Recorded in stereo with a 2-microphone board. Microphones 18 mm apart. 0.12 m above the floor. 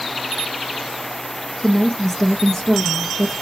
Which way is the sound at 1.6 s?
15° left (ahead or behind).